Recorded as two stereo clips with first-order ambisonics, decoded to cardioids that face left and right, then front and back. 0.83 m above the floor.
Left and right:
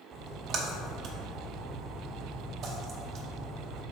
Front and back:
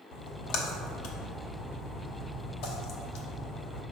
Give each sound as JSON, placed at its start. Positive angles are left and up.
{"t": 0.1, "sound": "a splash", "azimuth_deg": -35, "distance_m": 0.9}